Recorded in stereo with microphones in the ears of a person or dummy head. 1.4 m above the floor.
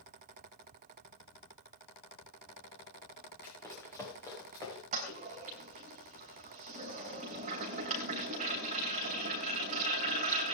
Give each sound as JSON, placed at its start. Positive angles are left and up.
{"t": 3.4, "sound": "running footsteps", "side_deg": 10, "distance_m": 6.5}
{"t": 4.9, "sound": "a toilet flushing", "side_deg": -40, "distance_m": 3.5}